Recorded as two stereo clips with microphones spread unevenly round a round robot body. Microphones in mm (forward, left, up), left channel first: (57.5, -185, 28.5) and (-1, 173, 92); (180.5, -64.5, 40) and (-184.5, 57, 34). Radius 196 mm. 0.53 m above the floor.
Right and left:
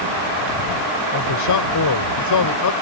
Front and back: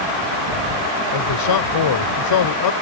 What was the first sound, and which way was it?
A man speaking, 50° right.